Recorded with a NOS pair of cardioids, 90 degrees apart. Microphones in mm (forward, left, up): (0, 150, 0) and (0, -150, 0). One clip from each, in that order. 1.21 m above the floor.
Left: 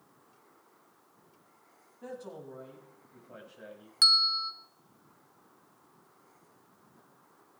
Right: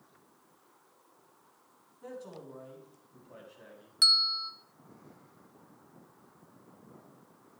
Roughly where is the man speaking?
Left.